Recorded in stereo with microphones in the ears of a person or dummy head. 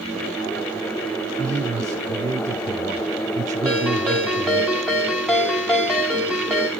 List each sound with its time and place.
1.4 s a man speaking: 15° right (ahead or behind), 0.6 m
3.6 s a ringtone: centre (ahead or behind), 1.0 m